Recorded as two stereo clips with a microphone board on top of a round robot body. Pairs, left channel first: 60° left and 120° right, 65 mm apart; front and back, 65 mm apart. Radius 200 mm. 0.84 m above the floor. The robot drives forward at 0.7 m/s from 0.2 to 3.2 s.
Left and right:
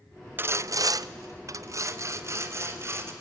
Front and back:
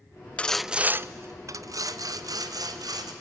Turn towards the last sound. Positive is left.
turn(degrees=-170)